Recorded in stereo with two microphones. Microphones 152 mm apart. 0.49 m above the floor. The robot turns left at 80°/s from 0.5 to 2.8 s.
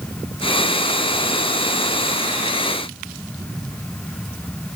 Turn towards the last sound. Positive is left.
No sound to turn to.